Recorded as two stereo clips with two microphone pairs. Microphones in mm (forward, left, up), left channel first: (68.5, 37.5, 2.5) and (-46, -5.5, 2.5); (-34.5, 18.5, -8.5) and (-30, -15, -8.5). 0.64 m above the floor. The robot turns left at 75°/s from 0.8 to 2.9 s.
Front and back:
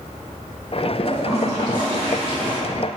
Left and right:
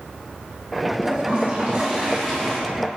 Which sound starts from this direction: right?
A toilet flushing, at 1.1 s.